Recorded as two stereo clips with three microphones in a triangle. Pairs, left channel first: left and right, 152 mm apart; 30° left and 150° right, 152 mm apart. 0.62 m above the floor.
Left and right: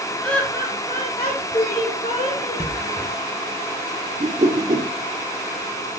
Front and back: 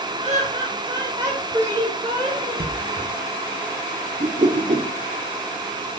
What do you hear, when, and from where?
0.2 s laughter: 175° left, 1.5 m; by 2.7 s 130° left, 3.5 m
2.6 s a thud: 160° right, 2.5 m
4.2 s a whoosh: 125° right, 1.3 m